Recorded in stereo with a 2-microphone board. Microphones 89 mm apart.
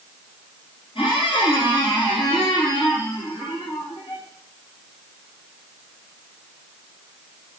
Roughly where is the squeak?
Left.